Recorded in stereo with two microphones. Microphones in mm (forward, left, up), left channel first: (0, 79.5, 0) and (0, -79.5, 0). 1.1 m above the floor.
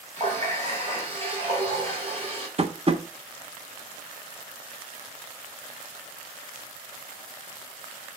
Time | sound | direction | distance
0.2 | a running tap | 45° right (ahead or behind) | 2.5 m
2.6 | tapping | 40° right (ahead or behind) | 0.7 m